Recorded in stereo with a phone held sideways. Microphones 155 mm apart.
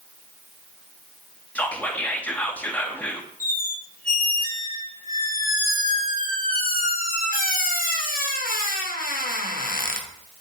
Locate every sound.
1.6 s whispering: 10° left (ahead or behind), 0.5 m
3.4 s a squeak: 65° left (ahead or behind), 0.5 m